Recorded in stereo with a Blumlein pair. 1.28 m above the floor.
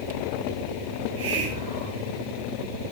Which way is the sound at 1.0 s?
60° right.